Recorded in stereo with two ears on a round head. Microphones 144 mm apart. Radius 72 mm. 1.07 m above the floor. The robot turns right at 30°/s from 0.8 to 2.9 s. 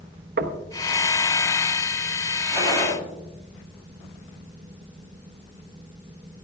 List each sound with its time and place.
0.4 s knocking: 65° right (ahead or behind), 1.0 m
2.5 s a gunshot: 30° right (ahead or behind), 6.5 m; by 2.9 s 45° right (ahead or behind), 6.5 m